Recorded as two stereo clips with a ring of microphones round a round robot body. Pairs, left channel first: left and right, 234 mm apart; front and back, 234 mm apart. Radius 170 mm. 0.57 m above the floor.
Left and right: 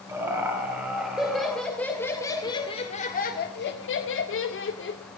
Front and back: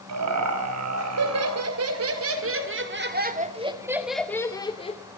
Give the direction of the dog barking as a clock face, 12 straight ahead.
No dog barking in this recording.